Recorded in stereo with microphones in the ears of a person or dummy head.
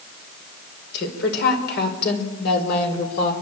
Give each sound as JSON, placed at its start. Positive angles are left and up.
{"t": 0.9, "sound": "a woman speaking", "side_deg": 65, "distance_m": 5.0}